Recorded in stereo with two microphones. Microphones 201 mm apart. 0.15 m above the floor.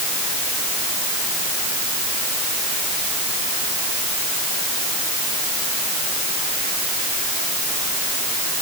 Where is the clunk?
No clunk in this recording.